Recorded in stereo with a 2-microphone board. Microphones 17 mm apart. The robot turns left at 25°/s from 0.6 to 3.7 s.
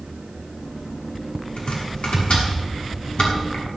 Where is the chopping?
70° left (ahead or behind), 7 m; by 3.6 s 55° left (ahead or behind), 7 m.